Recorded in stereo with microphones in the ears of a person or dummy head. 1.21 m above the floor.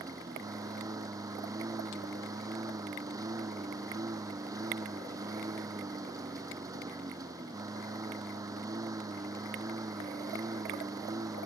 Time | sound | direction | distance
0.0 | a lawn mower | 10° right (ahead or behind) | ?